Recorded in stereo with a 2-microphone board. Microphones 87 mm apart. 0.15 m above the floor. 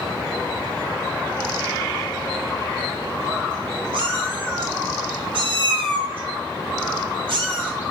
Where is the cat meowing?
85° right, 0.6 m.